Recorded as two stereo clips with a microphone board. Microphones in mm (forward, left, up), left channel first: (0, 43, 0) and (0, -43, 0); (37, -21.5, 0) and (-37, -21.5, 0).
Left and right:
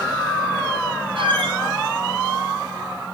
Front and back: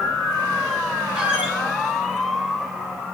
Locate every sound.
1.1 s a squeak: 105° right, 5.5 m